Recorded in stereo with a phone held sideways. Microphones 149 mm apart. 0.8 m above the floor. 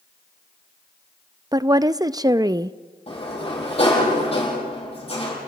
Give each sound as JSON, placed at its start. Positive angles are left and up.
{"t": 1.5, "sound": "a woman speaking", "side_deg": -25, "distance_m": 0.5}
{"t": 3.1, "sound": "a sliding door", "side_deg": 40, "distance_m": 10.0}